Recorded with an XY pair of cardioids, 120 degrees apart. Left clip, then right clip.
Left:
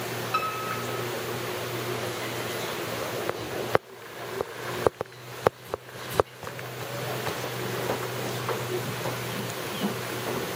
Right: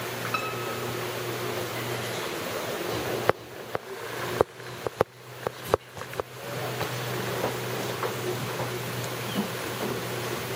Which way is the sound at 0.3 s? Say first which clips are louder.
Left 3 dB; 10° right.